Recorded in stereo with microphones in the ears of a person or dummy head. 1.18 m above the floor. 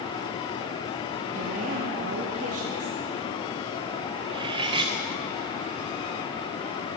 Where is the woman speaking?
40° right (ahead or behind), 0.9 m.